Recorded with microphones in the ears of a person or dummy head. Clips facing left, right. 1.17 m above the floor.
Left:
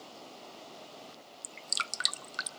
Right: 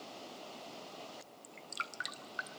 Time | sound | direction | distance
1.4 | dripping | 60° left (ahead or behind) | 0.6 m